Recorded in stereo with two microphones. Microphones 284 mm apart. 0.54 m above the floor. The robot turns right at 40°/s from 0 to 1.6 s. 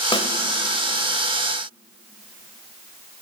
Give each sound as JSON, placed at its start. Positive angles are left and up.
{"t": 0.1, "sound": "a snare drum", "side_deg": 20, "distance_m": 0.9}